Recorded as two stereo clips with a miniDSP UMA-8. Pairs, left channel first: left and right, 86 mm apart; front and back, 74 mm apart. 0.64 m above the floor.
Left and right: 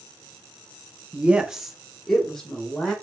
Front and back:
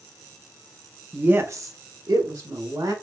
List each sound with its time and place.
1.1 s a woman speaking: 135° right, 0.6 m; by 2.9 s 170° left, 1.9 m